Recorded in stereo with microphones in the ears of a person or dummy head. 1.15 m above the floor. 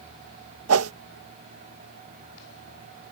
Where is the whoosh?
75° right (ahead or behind).